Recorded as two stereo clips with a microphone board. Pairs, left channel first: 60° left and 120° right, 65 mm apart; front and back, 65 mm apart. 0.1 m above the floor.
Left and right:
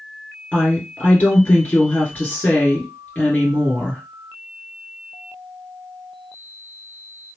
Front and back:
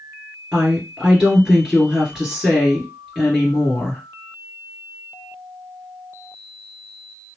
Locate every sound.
0.5 s a woman speaking: 105° left, 2 m